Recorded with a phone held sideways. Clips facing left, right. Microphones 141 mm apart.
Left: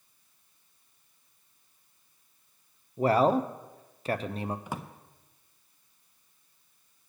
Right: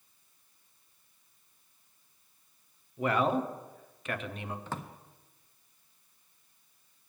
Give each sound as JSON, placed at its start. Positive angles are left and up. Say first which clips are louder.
{"t": 3.0, "sound": "a man speaking", "louder": "left 5 dB", "side_deg": 35, "distance_m": 0.6}
{"t": 4.7, "sound": "a drawer", "louder": "left 1 dB", "side_deg": 15, "distance_m": 0.6}